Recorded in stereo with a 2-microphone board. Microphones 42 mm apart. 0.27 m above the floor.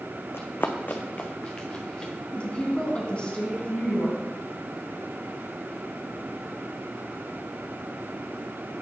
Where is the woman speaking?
25° left (ahead or behind), 2.5 m.